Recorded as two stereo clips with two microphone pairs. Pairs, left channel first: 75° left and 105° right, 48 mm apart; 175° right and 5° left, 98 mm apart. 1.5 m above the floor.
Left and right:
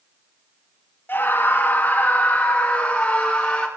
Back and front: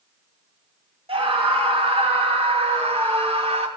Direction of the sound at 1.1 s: 25° left.